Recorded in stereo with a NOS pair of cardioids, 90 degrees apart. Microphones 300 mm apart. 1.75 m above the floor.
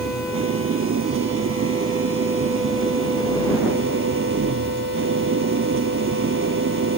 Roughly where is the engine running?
Ahead right.